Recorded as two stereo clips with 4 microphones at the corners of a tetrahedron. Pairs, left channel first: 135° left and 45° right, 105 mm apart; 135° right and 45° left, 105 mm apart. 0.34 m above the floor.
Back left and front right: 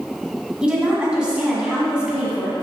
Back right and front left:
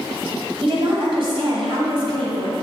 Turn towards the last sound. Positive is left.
turn(degrees=35)